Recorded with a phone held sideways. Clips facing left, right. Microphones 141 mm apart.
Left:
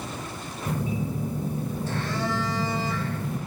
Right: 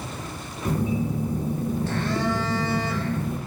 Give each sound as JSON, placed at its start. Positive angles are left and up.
{"t": 0.7, "sound": "a phone buzzing", "side_deg": -60, "distance_m": 2.5}